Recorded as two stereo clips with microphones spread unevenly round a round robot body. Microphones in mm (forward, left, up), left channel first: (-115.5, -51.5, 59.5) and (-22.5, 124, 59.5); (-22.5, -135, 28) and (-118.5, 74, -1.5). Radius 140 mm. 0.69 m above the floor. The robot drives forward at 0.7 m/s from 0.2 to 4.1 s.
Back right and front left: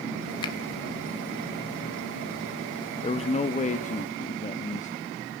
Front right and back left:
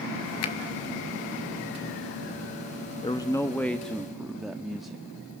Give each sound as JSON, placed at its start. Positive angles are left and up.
{"t": 0.4, "sound": "a finger snap", "azimuth_deg": -50, "distance_m": 1.3}
{"t": 3.0, "sound": "a man speaking", "azimuth_deg": -125, "distance_m": 0.9}